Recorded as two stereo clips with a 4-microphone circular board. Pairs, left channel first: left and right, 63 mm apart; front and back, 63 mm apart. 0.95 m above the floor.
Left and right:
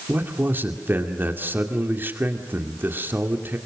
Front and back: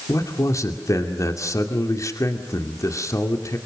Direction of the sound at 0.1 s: 35° right.